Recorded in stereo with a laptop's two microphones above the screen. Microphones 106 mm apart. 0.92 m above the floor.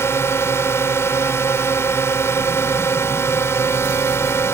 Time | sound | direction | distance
0.0 | a drone | 25° left (ahead or behind) | ?